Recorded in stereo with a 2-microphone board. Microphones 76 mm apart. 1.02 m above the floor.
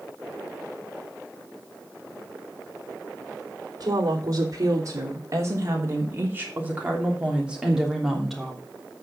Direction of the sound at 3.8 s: 55° right (ahead or behind).